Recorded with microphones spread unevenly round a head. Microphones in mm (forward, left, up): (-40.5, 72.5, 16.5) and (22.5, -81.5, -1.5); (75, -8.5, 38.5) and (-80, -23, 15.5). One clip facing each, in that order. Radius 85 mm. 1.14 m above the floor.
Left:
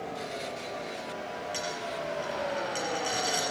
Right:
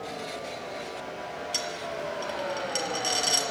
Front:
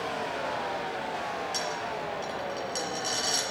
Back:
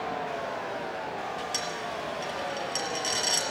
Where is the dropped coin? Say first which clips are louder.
Right 1 dB, front 1 dB; 105° right, 4.5 m.